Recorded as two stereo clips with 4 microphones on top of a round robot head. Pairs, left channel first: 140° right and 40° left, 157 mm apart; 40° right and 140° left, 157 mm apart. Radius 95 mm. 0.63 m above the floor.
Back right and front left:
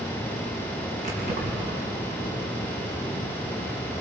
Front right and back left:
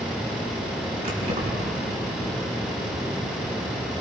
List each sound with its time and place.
1.0 s keys jangling: 85° left, 5 m